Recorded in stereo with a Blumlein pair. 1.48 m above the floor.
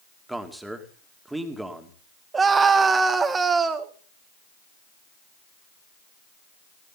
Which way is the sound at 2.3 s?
15° right.